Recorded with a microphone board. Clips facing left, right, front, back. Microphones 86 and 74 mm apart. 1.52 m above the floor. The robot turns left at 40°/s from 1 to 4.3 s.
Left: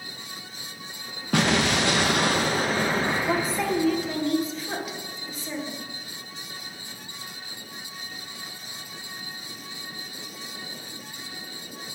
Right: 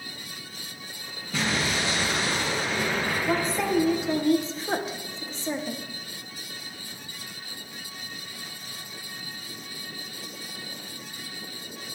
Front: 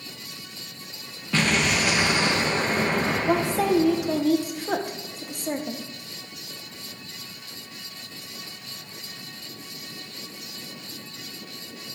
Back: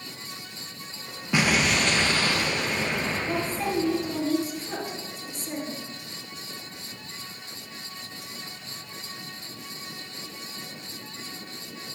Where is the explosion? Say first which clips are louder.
Left 5 dB, even; 105° left, 1.2 m; by 4.3 s 15° right, 1.2 m.